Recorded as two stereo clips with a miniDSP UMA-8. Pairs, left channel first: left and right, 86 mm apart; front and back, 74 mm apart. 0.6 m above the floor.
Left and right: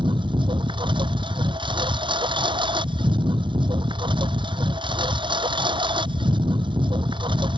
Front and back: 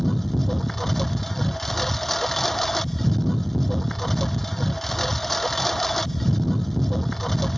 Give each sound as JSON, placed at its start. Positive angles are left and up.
{"t": 0.0, "sound": "a lawn mower", "azimuth_deg": -85}